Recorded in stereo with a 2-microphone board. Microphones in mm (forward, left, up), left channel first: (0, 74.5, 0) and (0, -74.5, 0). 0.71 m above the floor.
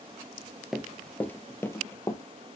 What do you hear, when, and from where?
0.7 s running footsteps: 5° right (ahead or behind), 0.7 m; by 2.2 s 20° left (ahead or behind), 1.3 m